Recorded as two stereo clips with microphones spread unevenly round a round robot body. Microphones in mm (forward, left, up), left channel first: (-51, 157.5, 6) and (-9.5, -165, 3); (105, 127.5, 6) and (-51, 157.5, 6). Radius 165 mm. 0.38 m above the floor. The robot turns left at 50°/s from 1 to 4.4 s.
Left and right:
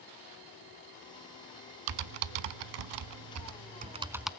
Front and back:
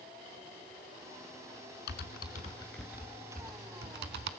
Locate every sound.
1.9 s typing on a keyboard: 50° right, 0.6 m; by 4.3 s 175° right, 0.6 m